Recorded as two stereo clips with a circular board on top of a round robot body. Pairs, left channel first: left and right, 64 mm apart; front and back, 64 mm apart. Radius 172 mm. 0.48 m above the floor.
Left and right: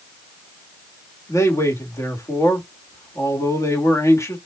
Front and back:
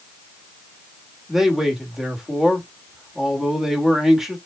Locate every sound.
1.3 s a man speaking: 95° left, 1.9 m